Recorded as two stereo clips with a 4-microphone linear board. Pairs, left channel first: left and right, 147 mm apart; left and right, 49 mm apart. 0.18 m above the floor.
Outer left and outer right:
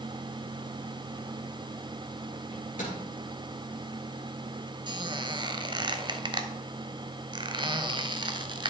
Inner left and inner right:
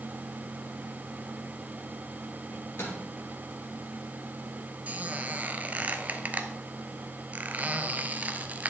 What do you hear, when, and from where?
2.5 s a microwave: 60° left (ahead or behind), 3 m
4.9 s a squeak: 35° right (ahead or behind), 0.6 m